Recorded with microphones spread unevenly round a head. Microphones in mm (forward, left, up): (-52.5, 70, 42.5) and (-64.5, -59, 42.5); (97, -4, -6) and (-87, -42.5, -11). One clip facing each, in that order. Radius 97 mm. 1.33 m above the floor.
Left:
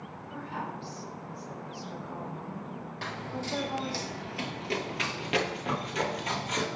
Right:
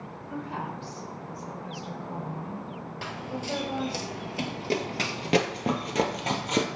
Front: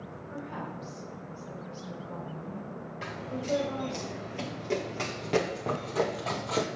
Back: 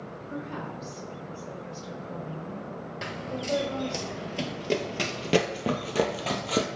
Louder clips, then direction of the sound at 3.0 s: Right 2 dB, back 1 dB; 175° right.